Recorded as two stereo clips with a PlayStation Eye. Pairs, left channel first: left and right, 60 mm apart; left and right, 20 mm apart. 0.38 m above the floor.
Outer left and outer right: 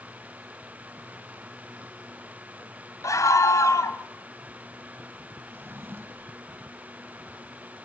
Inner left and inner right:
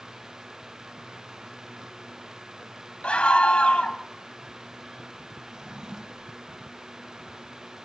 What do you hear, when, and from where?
3.0 s a scream: 65° left (ahead or behind), 2.5 m
5.5 s a drawer: 35° right (ahead or behind), 1.4 m